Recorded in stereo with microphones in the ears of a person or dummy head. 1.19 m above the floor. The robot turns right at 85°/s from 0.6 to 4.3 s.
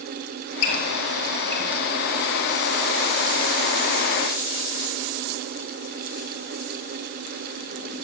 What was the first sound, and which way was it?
A squeak, 85° left.